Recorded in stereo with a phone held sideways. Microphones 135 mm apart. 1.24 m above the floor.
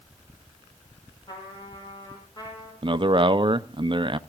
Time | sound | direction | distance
1.3 | a trumpet | 35° left (ahead or behind) | 5.5 m
2.8 | a man speaking | 40° right (ahead or behind) | 0.5 m